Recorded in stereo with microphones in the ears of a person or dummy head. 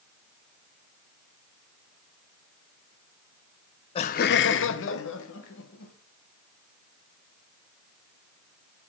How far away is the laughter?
About 0.5 m.